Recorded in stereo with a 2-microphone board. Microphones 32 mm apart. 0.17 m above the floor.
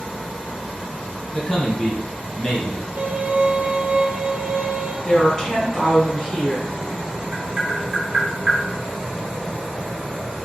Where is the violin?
70° right (ahead or behind), 0.9 m.